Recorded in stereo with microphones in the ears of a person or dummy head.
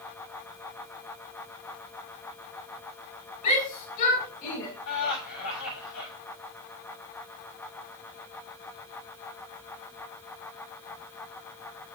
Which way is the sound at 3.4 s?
45° left (ahead or behind).